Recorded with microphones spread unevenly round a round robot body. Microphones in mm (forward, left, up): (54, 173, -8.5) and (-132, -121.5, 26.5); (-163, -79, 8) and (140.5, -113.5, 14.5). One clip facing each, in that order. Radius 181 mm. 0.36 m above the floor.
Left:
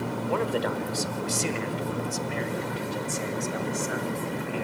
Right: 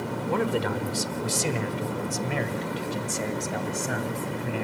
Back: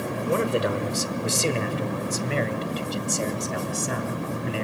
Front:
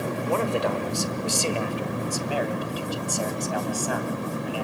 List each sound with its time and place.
0.3 s a man speaking: 155° right, 1.3 m; by 4.6 s 125° right, 3 m